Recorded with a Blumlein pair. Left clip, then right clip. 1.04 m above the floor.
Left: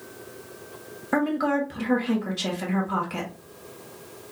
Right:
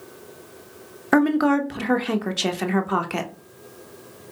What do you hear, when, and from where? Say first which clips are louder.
1.1 s a woman speaking: right 5 dB; 65° right, 0.7 m